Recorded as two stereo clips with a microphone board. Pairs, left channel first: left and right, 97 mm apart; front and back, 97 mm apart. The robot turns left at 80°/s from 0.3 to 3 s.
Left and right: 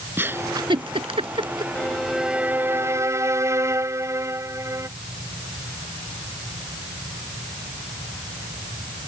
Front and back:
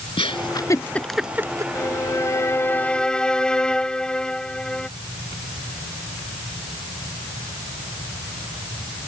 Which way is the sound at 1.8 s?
25° left.